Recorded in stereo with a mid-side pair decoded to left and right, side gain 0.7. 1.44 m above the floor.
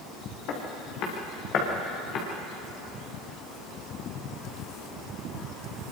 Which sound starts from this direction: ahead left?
Footsteps, at 0.5 s.